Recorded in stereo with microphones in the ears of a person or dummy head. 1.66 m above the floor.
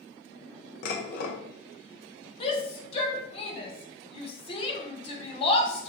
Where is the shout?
35° left (ahead or behind), 1.4 m.